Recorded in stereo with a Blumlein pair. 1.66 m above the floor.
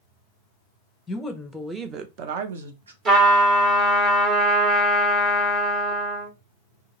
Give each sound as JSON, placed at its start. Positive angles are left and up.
{"t": 1.1, "sound": "a woman speaking", "azimuth_deg": 15, "distance_m": 0.7}
{"t": 3.0, "sound": "a trumpet", "azimuth_deg": -35, "distance_m": 1.1}